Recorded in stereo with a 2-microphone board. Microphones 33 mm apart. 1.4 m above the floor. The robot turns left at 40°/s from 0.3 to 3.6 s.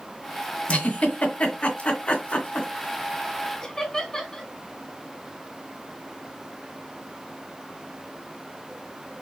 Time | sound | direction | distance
0.7 | a giggle | 40° left (ahead or behind) | 1.7 m
3.6 | laughter | 10° left (ahead or behind) | 1.8 m